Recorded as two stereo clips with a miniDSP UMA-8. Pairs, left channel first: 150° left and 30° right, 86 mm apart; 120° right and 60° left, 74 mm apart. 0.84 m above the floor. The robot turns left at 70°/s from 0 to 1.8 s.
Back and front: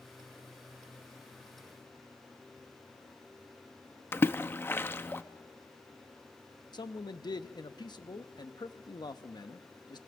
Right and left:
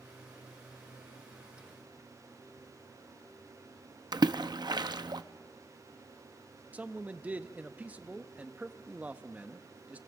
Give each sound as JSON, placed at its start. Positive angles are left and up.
{"t": 4.1, "sound": "a splash", "azimuth_deg": 85, "distance_m": 0.6}
{"t": 6.7, "sound": "a man speaking", "azimuth_deg": 130, "distance_m": 0.9}